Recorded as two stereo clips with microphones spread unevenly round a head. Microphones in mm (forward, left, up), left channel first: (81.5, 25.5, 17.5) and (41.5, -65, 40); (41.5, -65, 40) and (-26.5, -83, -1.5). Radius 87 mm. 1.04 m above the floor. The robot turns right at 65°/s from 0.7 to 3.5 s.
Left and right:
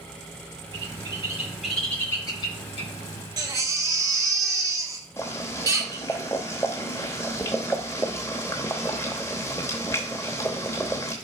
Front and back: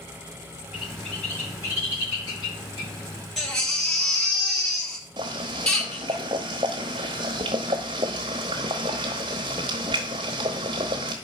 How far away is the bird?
About 5 m.